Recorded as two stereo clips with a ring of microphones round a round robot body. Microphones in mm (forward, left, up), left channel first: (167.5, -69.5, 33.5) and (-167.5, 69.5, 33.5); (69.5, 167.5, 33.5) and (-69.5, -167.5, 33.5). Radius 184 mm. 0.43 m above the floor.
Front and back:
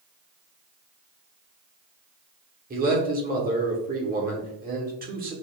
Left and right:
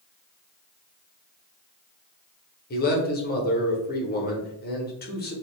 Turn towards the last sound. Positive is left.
turn(degrees=110)